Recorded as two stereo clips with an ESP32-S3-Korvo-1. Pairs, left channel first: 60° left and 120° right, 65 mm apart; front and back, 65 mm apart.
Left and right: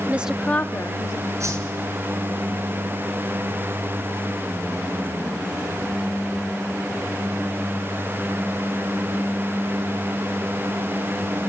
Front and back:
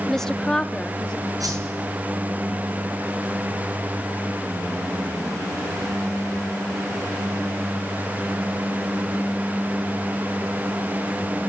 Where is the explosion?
I don't hear an explosion.